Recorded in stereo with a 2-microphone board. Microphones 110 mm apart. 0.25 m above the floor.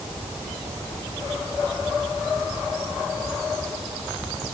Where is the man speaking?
I don't hear a man speaking.